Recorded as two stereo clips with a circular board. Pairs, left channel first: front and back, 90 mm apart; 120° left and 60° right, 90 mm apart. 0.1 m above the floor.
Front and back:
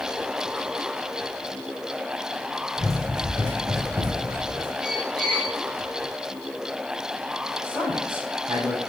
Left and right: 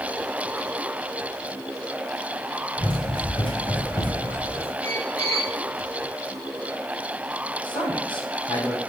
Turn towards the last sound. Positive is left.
turn(degrees=100)